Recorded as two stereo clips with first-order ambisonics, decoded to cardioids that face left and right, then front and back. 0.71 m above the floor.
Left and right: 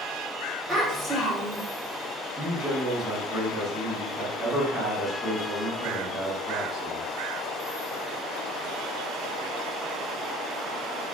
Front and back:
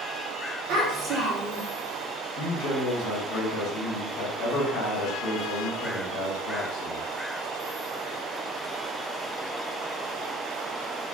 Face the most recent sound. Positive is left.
turn(degrees=-15)